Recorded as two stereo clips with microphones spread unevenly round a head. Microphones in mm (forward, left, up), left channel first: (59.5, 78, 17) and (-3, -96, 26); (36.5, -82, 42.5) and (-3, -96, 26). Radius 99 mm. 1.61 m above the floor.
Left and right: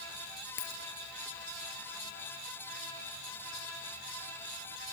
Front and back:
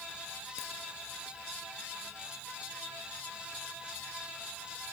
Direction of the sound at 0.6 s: 45° left.